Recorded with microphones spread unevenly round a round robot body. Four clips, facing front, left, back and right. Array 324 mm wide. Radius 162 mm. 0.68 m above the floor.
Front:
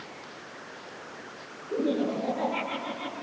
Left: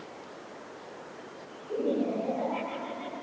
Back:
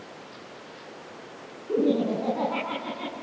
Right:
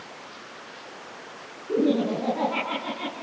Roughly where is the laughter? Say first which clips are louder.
Right 6 dB, back 4 dB; behind right.